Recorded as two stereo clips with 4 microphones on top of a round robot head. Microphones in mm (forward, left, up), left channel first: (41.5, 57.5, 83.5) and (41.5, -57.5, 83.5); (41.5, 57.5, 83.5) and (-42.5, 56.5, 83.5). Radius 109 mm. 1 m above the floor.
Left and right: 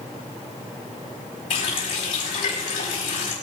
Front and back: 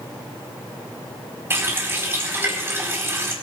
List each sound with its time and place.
1.5 s a running tap: 120° left, 5 m